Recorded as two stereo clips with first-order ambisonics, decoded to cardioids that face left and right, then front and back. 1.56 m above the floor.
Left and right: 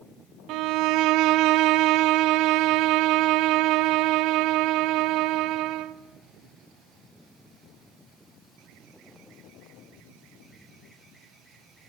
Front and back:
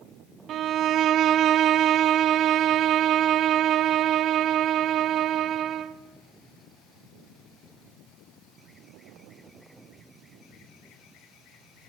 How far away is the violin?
About 0.8 m.